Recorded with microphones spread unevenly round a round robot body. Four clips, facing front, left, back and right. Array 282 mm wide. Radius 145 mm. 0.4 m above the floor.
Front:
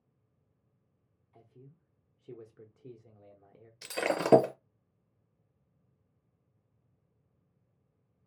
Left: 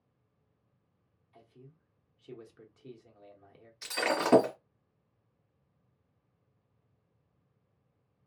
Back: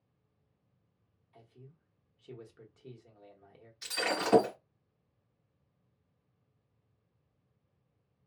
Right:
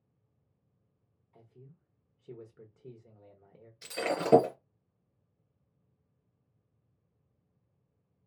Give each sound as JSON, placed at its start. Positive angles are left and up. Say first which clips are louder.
{"t": 1.3, "sound": "a man speaking", "louder": "left 1 dB, even", "azimuth_deg": -45, "distance_m": 0.9}
{"t": 3.8, "sound": "breaking glass", "louder": "left 2 dB, front 2 dB", "azimuth_deg": -5, "distance_m": 0.5}